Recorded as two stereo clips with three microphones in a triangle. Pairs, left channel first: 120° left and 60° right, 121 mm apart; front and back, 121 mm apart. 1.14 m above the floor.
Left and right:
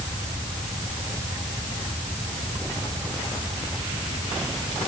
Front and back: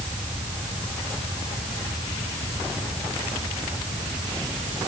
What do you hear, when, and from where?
Only background noise.